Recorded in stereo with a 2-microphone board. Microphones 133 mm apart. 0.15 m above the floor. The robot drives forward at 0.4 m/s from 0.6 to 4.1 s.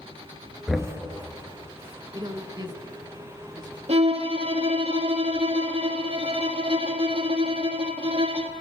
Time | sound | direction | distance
0.7 | knocking | centre (ahead or behind) | 2 m
2.1 | a woman speaking | 35° right (ahead or behind) | 1.4 m
3.9 | a violin | 50° right (ahead or behind) | 1.3 m